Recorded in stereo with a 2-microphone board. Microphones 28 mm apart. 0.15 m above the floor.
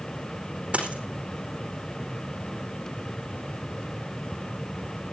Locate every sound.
0.7 s a dropped coin: 50° right (ahead or behind), 4.5 m